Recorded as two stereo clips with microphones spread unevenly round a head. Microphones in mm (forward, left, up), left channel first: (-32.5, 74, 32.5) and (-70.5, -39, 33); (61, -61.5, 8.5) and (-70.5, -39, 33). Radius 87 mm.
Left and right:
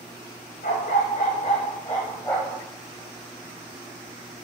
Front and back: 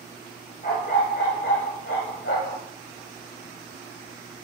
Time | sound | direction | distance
0.6 | a dog barking | 45° left | 2.5 m